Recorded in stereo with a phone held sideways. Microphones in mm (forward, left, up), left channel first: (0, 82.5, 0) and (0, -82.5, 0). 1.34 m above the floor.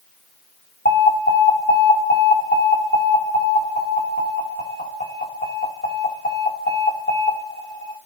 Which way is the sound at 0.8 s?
80° left.